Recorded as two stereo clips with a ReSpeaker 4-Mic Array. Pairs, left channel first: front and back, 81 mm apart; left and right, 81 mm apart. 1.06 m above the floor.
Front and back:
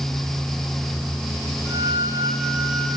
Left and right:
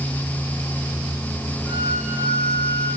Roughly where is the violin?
Behind right.